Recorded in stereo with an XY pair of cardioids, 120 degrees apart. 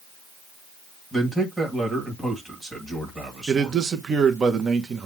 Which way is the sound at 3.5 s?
35° right.